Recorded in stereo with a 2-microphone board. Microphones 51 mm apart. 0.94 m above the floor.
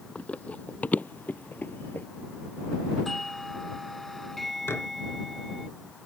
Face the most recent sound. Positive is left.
turn(degrees=55)  # may be behind; listen again after turning